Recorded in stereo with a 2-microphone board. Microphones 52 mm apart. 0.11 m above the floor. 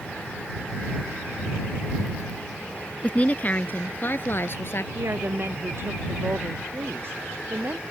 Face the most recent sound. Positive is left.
turn(degrees=-50)  # may be behind; listen again after turning